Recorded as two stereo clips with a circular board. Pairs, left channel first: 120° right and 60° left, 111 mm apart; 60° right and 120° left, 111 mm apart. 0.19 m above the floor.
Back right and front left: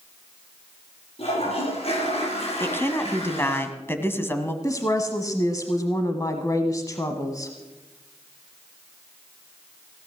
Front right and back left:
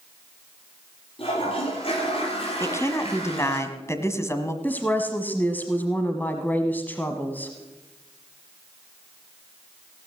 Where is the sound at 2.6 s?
80° right, 1.5 m.